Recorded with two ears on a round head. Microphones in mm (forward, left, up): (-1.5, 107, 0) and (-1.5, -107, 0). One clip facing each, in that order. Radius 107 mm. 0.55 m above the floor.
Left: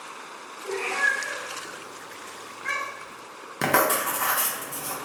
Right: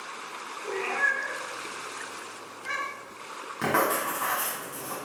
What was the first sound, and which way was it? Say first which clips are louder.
A cat meowing: left 1 dB; 10° right (ahead or behind).